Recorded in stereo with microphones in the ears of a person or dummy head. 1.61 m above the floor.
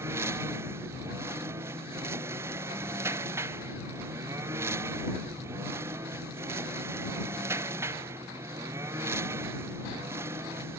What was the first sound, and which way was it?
A lawn mower, 15° right (ahead or behind).